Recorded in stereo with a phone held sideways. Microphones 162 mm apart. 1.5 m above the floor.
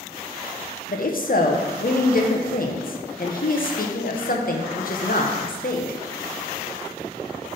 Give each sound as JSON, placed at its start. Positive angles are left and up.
{"t": 0.9, "sound": "a woman speaking", "side_deg": 60, "distance_m": 0.8}